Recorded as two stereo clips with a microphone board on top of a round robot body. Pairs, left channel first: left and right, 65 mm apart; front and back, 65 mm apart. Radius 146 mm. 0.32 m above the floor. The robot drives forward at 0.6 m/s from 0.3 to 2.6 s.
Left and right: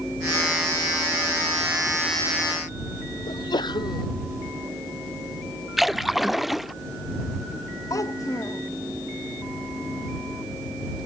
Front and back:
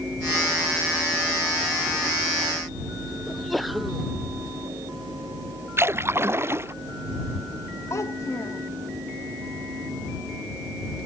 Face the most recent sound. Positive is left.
turn(degrees=50)